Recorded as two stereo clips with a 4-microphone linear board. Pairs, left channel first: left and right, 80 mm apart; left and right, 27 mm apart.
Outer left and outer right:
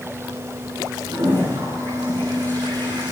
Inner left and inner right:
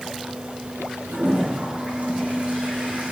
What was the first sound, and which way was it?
A toilet flushing, 50° right (ahead or behind).